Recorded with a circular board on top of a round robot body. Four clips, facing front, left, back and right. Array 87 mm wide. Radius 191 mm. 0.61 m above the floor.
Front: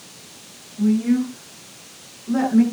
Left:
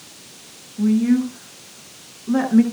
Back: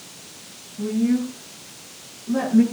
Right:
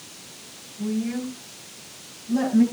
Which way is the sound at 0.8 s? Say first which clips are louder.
Left 10 dB, front 3 dB; 80° left.